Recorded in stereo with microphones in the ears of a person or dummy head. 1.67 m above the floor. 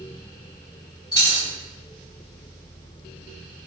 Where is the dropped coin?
15° left (ahead or behind), 1.7 m.